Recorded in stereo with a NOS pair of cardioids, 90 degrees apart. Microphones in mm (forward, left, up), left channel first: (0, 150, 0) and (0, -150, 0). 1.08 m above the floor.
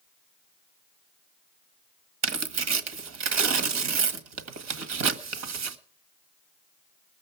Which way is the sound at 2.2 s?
60° right.